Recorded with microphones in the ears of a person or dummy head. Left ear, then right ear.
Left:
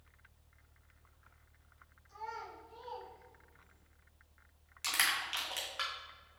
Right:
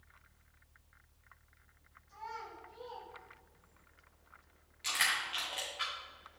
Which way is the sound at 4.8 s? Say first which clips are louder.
Even; 40° left (ahead or behind).